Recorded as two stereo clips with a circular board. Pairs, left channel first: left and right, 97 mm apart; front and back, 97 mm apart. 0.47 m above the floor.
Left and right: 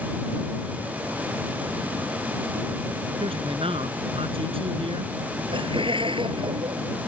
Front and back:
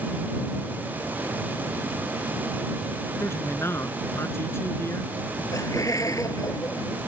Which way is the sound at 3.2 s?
65° right.